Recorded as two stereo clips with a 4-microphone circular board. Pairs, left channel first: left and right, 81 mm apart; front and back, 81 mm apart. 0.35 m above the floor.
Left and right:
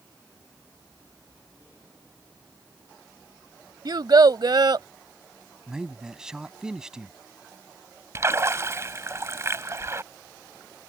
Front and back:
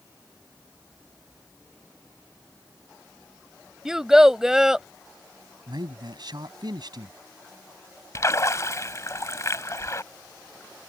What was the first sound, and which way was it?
A child speaking, 95° right.